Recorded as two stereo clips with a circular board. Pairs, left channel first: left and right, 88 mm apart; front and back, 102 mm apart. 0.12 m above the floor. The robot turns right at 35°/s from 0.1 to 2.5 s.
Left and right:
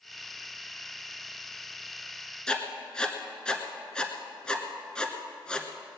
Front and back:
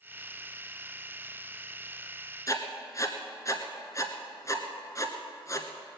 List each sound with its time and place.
2.5 s writing: 15° left, 1.3 m; by 5.7 s 20° left, 1.3 m